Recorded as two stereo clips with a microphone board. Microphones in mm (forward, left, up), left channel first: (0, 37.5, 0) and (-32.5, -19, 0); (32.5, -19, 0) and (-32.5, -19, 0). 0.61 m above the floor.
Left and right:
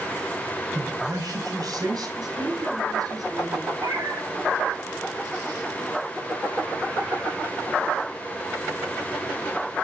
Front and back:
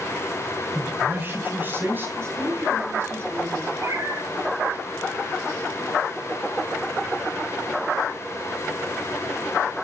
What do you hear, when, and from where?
0.8 s a man speaking: 125° right, 3.5 m
2.2 s a woman speaking: 135° right, 9 m
3.8 s a cat meowing: 135° right, 9.5 m